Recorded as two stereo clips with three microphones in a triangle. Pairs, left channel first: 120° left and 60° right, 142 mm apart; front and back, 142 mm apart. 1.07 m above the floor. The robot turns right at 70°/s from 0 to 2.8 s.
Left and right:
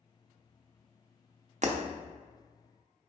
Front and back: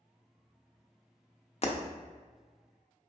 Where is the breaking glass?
35° right, 0.6 m; by 1.8 s 25° right, 0.6 m.